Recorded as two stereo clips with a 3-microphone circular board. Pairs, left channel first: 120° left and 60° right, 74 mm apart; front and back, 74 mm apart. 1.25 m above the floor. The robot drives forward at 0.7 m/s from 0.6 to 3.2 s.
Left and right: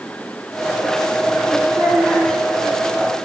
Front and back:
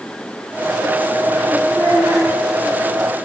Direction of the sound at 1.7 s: 30° left.